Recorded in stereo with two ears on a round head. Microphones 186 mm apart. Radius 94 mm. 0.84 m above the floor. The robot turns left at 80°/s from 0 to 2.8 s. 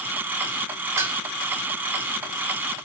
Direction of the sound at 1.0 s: 15° right (ahead or behind).